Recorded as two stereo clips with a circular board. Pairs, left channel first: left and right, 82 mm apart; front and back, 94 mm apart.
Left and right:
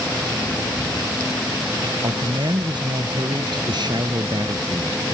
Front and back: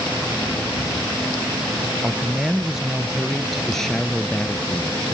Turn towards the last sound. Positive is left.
turn(degrees=-70)